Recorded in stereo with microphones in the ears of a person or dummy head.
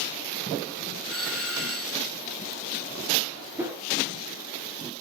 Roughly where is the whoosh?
Centre.